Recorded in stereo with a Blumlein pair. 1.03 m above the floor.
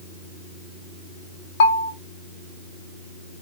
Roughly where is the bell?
Ahead left.